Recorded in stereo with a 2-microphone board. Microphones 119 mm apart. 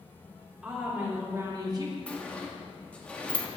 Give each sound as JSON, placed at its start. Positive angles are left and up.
{"t": 0.6, "sound": "a woman speaking", "side_deg": -10, "distance_m": 3.0}
{"t": 2.1, "sound": "a sliding door", "side_deg": 10, "distance_m": 1.0}